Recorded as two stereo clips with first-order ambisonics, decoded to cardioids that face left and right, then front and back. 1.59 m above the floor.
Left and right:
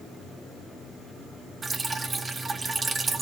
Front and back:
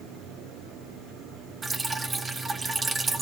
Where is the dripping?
135° right, 0.6 m.